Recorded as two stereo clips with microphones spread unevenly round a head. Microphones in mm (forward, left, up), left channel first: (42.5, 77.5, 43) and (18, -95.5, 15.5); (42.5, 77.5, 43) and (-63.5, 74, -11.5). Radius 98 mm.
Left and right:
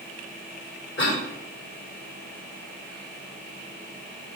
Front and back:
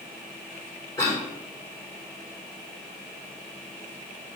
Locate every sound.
1.0 s a cough: 70° left, 3.5 m